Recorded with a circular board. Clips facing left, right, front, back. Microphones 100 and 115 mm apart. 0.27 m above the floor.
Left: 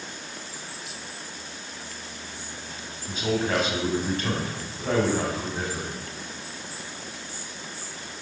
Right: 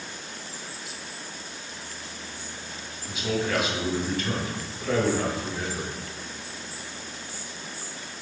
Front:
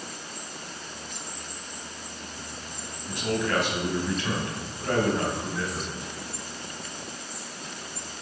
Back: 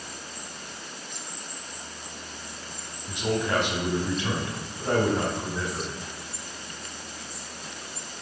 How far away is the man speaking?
About 1.9 m.